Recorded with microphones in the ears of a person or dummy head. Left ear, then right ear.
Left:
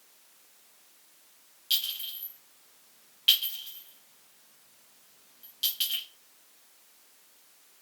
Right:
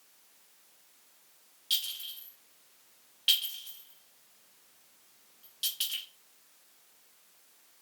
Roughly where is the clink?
Centre.